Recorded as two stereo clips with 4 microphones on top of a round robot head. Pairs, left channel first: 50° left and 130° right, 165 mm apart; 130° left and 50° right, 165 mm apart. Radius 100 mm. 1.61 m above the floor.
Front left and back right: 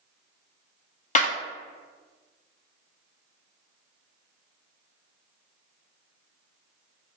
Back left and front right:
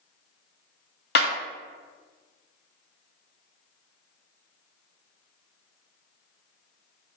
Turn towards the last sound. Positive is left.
turn(degrees=95)